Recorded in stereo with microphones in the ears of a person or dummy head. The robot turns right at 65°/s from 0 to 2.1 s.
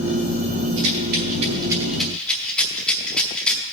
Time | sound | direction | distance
0.8 | a rattle | 80° right | 3.5 m